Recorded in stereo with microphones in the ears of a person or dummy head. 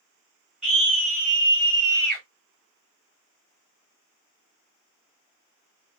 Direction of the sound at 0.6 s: 30° right (ahead or behind).